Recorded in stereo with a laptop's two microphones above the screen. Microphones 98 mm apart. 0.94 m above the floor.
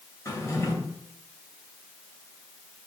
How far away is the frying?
No frying in this recording.